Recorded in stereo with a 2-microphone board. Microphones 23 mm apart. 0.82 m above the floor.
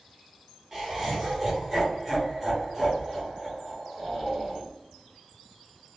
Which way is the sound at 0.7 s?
20° right (ahead or behind).